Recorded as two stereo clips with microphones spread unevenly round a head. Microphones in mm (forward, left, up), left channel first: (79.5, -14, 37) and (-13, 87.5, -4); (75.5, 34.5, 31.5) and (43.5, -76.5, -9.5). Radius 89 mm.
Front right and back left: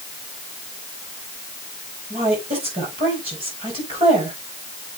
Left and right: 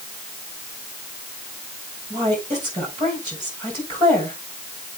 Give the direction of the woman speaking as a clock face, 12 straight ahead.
6 o'clock.